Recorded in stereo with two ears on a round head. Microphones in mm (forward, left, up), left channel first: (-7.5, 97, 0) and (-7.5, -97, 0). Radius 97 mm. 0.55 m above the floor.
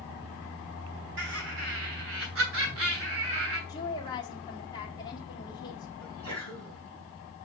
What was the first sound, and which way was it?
Laughter, 60° right (ahead or behind).